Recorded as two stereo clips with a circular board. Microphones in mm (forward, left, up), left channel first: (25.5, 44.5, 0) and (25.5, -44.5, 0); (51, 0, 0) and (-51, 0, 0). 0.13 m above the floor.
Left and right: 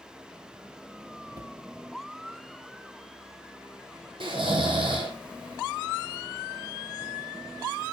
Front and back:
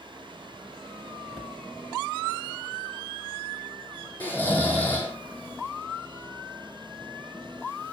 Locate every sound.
1.3 s a cupboard door: 85° right, 1.3 m
4.2 s snoring: 75° right, 2.5 m